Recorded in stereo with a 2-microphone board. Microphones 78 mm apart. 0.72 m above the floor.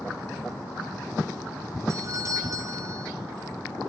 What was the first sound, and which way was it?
A doorbell, 45° right (ahead or behind).